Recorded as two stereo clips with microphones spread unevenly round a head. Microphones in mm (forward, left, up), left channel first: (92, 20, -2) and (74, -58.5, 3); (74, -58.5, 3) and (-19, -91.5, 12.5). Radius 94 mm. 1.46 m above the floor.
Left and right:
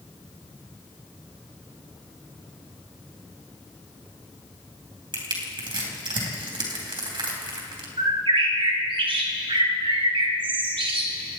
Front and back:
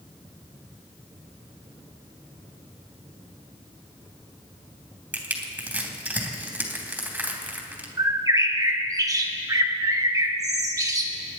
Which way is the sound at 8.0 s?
110° right.